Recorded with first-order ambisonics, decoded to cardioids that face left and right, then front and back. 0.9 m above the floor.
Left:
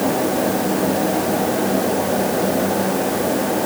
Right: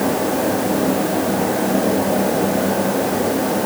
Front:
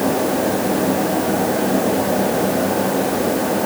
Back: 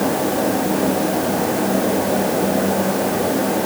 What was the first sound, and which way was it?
Only background noise.